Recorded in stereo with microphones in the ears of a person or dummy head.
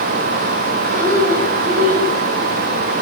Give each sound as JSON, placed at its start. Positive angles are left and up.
{"t": 0.9, "sound": "breathing", "side_deg": -45, "distance_m": 8.0}